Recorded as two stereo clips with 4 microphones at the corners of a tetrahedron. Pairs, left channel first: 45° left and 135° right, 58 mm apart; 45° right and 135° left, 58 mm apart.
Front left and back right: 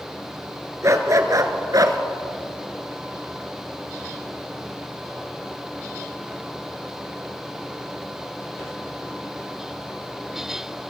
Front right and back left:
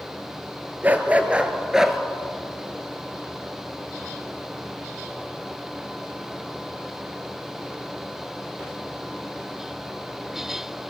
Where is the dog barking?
165° right, 1.6 m; by 2.0 s 140° right, 1.4 m.